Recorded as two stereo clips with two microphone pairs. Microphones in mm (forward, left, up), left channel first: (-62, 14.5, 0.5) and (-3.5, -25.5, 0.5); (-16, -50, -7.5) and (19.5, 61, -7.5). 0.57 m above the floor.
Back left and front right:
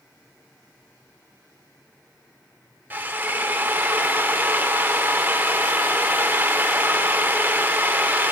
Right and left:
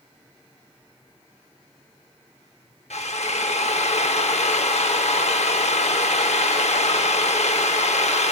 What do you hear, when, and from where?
2.9 s a drill: 100° right, 0.8 m